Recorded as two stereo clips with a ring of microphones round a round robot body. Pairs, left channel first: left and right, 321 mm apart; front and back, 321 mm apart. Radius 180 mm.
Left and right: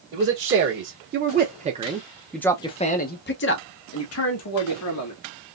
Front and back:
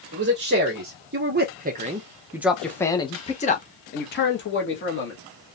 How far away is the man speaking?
About 1.4 m.